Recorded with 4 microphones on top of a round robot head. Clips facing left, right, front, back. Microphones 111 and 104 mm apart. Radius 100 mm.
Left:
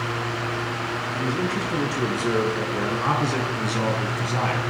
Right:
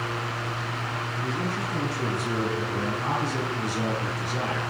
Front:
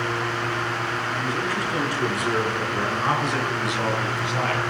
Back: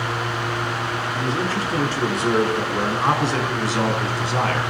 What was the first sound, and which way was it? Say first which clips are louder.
A man speaking: left 5 dB, back 3 dB; 120° left.